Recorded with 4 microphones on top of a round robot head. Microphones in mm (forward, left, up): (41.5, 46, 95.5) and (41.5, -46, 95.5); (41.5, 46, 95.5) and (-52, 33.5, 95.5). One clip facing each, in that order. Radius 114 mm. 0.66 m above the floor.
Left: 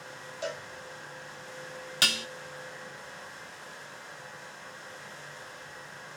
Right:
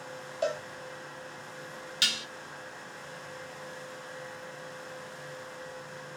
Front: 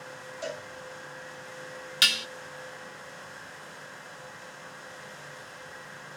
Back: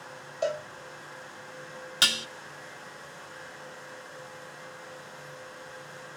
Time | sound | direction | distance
0.4 | a cowbell | 140° right | 3 m
2.0 | dishes clattering | 135° left | 0.7 m